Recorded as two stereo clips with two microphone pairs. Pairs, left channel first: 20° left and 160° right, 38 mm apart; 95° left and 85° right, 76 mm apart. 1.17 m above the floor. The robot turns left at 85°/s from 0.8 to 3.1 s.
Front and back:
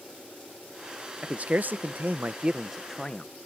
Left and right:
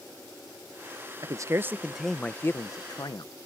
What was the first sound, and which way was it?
A man speaking, 105° right.